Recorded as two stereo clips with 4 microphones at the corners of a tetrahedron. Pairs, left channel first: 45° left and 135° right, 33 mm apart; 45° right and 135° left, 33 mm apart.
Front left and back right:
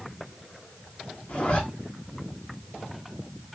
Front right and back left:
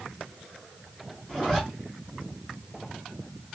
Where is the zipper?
25° left, 1.3 m.